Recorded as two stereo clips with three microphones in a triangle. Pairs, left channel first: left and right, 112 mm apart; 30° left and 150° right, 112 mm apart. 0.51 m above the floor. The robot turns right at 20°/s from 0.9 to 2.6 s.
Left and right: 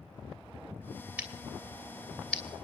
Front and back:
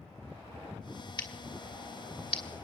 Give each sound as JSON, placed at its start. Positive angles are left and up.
{"t": 1.2, "sound": "scissors", "azimuth_deg": -15, "distance_m": 2.5}